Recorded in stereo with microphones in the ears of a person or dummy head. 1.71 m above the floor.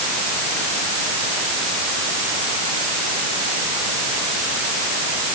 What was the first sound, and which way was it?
Only background noise.